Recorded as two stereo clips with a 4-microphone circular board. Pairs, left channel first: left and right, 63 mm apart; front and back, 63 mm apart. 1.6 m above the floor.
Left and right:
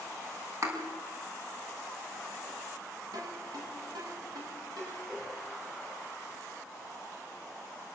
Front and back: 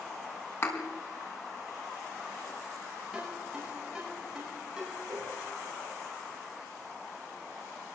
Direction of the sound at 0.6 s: 50° right.